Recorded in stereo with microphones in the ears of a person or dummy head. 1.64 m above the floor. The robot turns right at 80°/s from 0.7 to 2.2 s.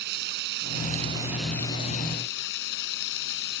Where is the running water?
60° right; by 3.6 s 60° left.